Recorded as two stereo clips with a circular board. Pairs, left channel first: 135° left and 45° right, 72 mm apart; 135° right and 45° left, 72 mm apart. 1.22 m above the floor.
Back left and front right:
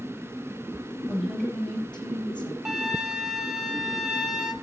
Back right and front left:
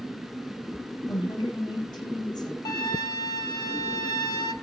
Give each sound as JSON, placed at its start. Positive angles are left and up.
{"t": 1.1, "sound": "a woman speaking", "azimuth_deg": -135, "distance_m": 7.0}
{"t": 2.6, "sound": "a flute", "azimuth_deg": -125, "distance_m": 1.3}